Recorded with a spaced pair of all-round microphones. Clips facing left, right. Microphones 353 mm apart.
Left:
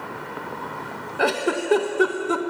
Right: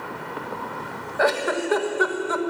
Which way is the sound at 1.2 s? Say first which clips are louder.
Even; 45° left (ahead or behind).